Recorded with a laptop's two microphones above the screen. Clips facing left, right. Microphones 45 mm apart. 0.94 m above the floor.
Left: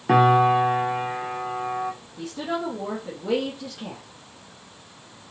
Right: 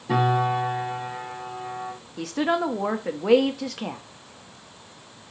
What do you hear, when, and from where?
0.1 s a piano: 70° left (ahead or behind), 1.1 m
2.2 s a woman speaking: 70° right (ahead or behind), 0.8 m